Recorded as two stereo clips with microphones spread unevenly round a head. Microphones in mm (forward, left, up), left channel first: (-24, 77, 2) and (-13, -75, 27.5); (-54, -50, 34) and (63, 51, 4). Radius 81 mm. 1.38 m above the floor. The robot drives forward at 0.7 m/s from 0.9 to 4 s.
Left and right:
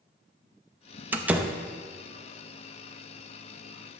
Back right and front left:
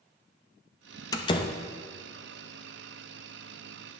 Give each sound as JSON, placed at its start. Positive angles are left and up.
{"t": 1.1, "sound": "a door slam", "azimuth_deg": -135, "distance_m": 0.6}